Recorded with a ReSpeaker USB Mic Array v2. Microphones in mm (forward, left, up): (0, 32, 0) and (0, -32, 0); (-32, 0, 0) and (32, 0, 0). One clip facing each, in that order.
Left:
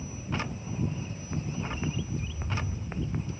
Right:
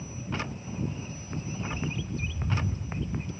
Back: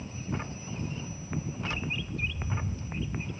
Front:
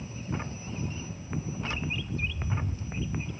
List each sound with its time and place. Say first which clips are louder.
1.6 s a bird: even, even; 95° right